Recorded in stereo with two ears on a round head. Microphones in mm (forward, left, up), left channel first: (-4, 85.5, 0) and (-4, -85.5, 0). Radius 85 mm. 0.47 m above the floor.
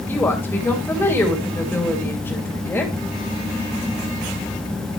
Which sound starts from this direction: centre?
A woman speaking, at 0.1 s.